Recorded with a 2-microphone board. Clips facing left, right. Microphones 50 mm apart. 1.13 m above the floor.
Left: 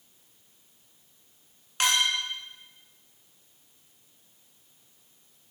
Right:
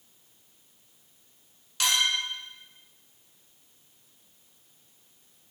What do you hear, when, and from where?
1.8 s a clink: 40° left (ahead or behind), 1.0 m